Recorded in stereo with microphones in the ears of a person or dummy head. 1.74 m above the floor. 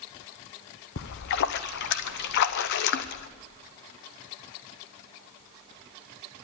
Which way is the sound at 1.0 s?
60° left (ahead or behind).